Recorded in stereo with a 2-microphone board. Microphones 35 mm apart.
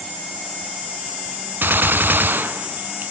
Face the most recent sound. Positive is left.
turn(degrees=-65)  # may be behind; listen again after turning